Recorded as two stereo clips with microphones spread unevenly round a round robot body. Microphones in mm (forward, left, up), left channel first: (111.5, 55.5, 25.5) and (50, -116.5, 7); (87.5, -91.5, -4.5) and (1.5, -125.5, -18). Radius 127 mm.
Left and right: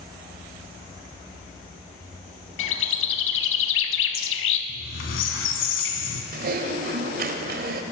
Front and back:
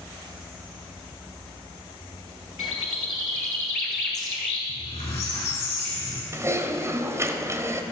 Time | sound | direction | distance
2.6 | a bird | 95° left | 0.6 m
4.7 | a squeak | 75° left | 1.3 m
6.3 | typing on a keyboard | 110° right | 0.9 m